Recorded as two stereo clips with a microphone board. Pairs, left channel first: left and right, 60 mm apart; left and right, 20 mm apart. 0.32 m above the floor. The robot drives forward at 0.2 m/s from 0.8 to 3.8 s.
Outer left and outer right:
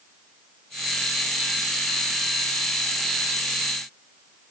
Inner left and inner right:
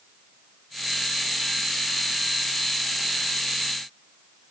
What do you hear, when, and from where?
Only background noise.